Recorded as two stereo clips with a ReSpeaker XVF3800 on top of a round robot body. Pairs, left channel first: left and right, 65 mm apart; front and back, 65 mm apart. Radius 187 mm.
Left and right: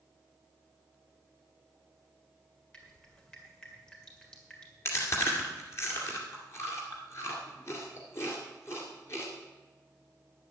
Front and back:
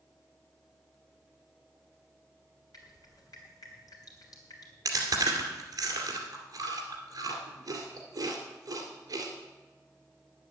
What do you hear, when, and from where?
2.7 s dripping: 15° left, 3.5 m
4.8 s chewing: 140° left, 2 m